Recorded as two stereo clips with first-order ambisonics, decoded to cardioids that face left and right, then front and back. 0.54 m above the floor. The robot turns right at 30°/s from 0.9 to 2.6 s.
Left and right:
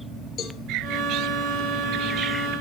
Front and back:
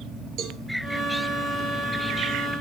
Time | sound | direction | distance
0.4 | a cowbell | 140° left | 5 m